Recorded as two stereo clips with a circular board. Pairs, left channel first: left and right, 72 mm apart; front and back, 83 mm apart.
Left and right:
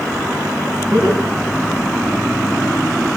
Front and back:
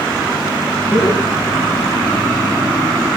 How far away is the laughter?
About 8 m.